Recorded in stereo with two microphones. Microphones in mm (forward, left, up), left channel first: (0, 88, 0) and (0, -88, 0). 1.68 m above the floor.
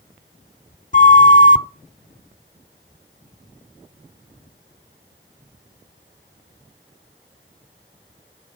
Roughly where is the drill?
No drill in this recording.